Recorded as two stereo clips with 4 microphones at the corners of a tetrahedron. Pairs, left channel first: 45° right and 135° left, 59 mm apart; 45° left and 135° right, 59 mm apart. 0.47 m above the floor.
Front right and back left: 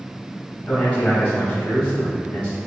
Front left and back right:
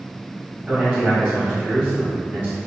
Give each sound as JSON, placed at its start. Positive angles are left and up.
{"t": 0.7, "sound": "a man speaking", "azimuth_deg": -100, "distance_m": 1.4}